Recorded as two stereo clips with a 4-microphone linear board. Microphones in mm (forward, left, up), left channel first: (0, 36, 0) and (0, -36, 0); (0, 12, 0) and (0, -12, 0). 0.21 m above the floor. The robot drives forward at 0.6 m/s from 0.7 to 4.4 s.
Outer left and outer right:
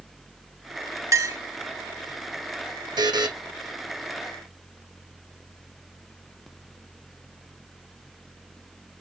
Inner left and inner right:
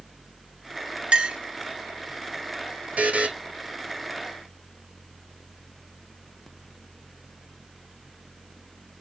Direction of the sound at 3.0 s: 90° right.